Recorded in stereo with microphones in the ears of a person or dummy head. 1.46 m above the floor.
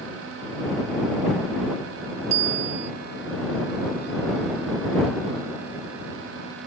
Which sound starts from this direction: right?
A bicycle bell, at 2.3 s.